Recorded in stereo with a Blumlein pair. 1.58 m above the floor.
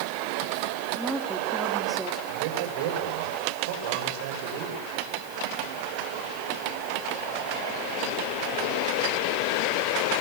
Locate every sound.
0.9 s a woman speaking: 5° right, 4.5 m
2.3 s a man speaking: 50° right, 9 m